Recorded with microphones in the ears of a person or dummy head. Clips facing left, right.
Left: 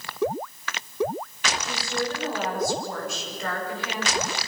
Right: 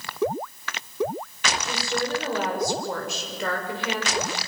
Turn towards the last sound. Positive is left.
turn(degrees=-65)  # may be behind; listen again after turning